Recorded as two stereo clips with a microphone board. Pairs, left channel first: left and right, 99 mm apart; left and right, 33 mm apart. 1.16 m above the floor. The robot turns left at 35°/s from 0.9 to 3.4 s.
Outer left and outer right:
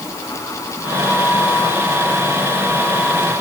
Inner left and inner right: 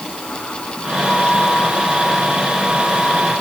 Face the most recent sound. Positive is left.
No sound to turn to.